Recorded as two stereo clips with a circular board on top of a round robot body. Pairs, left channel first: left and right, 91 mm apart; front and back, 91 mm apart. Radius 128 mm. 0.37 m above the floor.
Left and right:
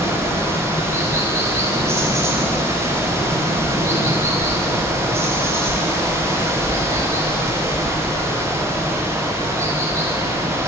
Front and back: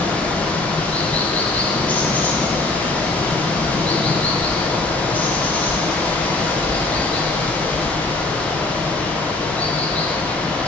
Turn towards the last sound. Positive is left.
turn(degrees=-60)